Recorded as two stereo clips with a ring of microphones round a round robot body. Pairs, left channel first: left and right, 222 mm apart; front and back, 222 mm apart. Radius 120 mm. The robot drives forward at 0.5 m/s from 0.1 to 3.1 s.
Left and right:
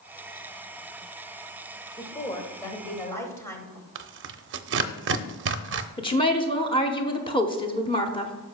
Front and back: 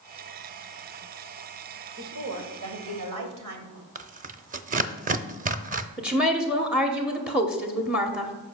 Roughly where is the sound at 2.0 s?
Behind.